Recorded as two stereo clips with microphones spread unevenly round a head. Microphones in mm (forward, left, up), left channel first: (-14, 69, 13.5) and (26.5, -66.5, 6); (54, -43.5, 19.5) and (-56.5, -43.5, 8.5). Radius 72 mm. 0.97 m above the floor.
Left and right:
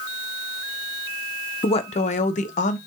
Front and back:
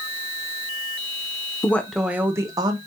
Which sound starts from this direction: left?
A woman speaking, at 1.6 s.